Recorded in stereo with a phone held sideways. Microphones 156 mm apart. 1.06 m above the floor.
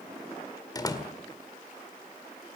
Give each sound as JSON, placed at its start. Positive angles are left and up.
{"t": 0.8, "sound": "a door slam", "side_deg": 25, "distance_m": 2.0}